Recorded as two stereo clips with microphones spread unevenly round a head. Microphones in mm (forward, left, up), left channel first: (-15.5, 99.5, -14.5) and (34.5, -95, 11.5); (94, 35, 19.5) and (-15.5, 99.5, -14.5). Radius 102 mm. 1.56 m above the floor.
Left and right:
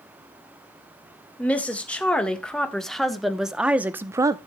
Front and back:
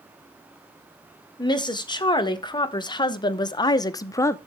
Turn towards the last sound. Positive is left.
turn(degrees=-35)